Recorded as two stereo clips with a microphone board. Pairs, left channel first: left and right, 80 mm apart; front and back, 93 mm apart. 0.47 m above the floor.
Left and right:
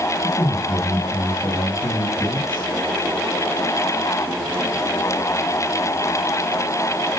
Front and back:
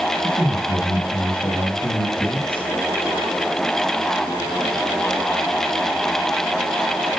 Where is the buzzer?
No buzzer in this recording.